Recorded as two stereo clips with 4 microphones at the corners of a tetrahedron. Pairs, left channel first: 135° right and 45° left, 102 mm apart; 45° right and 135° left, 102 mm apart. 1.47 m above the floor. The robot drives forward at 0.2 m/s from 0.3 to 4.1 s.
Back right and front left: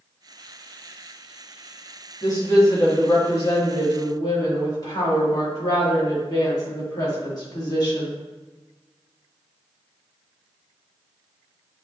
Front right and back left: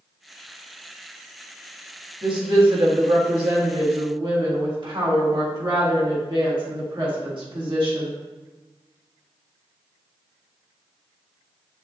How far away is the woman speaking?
About 1.3 m.